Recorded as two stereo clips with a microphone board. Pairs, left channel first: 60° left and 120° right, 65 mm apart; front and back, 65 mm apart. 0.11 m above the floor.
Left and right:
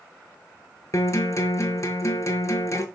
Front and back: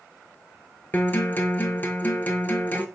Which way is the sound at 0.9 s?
55° left.